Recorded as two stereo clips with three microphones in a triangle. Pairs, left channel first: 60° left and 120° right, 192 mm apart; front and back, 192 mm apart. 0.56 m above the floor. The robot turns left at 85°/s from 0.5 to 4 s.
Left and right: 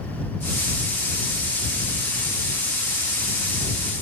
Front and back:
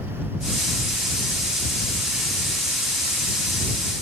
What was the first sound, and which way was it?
Only background noise.